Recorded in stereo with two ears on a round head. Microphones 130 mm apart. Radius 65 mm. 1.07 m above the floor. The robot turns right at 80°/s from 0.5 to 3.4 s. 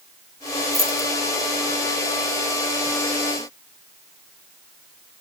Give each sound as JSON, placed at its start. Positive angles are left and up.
{"t": 0.7, "sound": "keys jangling", "side_deg": -5, "distance_m": 1.8}